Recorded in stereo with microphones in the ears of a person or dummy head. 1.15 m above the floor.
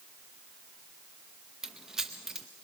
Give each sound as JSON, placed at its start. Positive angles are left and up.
{"t": 1.6, "sound": "keys jangling", "side_deg": -5, "distance_m": 0.6}